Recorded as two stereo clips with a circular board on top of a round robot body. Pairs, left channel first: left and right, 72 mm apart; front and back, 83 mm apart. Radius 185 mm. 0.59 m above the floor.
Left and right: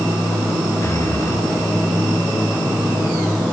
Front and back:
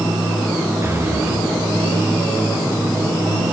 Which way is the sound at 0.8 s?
130° left.